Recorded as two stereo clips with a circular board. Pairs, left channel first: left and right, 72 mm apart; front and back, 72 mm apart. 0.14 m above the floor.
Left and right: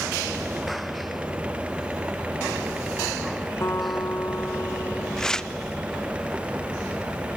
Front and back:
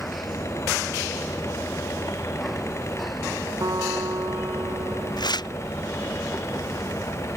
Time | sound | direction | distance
3.6 | a guitar | 145° left | ?
5.2 | tearing paper | 10° left | ?